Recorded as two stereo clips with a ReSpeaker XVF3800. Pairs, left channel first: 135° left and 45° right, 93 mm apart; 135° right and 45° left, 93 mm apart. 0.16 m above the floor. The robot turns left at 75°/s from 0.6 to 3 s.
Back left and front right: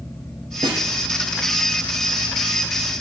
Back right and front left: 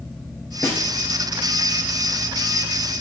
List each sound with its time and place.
0.6 s a snare drum: 70° right, 3 m; by 0.8 s 85° right, 3 m